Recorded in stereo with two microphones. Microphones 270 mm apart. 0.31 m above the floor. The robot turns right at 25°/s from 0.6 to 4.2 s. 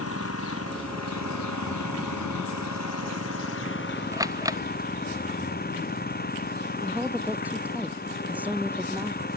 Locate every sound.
0.0 s an engine running: 55° left; by 9.4 s 145° left
4.1 s a camera shutter: 10° right (ahead or behind)
6.8 s a woman speaking: 5° right (ahead or behind)